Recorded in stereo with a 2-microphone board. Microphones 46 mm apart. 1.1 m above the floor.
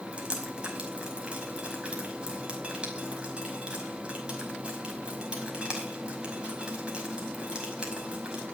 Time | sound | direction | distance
0.1 | dripping | 25° right (ahead or behind) | 5 m